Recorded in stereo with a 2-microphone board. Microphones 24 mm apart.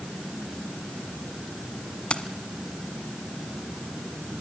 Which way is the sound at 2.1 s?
45° left (ahead or behind).